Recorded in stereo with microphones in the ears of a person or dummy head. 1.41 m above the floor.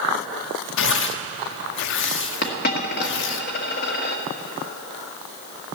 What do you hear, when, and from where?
0.8 s tearing paper: 60° left (ahead or behind), 0.7 m
2.4 s a dropped coin: 50° left (ahead or behind), 1.2 m